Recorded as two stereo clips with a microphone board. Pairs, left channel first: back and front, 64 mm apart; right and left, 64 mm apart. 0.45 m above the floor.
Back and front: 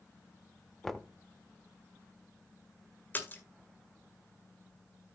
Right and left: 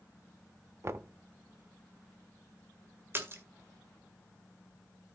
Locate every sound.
0.8 s knocking: 100° left, 0.7 m
3.1 s a splash: 130° left, 1.9 m